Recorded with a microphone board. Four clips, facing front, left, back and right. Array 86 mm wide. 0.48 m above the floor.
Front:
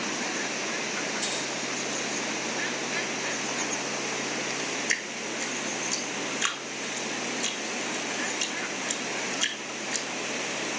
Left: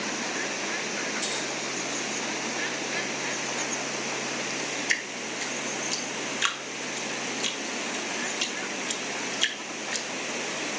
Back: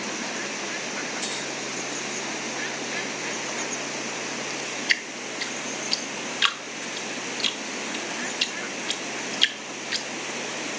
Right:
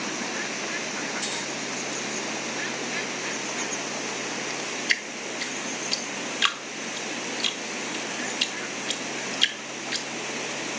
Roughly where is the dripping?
Behind.